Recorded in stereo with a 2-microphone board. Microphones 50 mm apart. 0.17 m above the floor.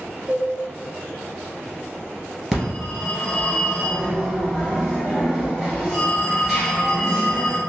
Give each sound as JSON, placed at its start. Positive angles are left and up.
{"t": 0.3, "sound": "a cowbell", "side_deg": -5, "distance_m": 1.6}
{"t": 2.5, "sound": "a phone ringing", "side_deg": 5, "distance_m": 1.8}